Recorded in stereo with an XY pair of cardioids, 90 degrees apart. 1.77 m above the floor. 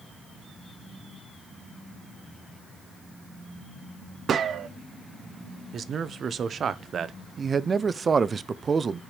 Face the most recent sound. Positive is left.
turn(degrees=-40)